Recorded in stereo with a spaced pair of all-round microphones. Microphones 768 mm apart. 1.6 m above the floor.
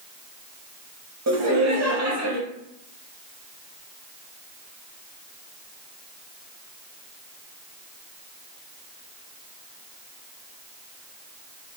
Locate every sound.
1.3 s laughter: 25° right (ahead or behind), 0.6 m